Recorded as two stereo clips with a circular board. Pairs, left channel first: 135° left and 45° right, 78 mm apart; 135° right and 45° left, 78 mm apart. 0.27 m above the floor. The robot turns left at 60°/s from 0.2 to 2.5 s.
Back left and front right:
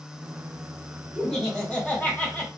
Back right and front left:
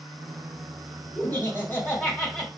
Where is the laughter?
130° right, 1.1 m; by 2.5 s 150° left, 1.1 m.